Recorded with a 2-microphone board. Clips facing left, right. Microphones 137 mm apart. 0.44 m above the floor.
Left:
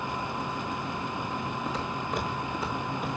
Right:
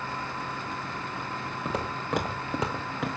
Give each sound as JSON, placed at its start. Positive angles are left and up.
{"t": 1.6, "sound": "footsteps", "side_deg": -55, "distance_m": 2.5}